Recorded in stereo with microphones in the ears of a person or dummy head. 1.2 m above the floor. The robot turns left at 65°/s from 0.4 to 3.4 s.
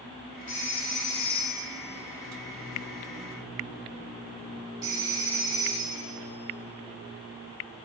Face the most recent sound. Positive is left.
turn(degrees=-20)  # may be behind; listen again after turning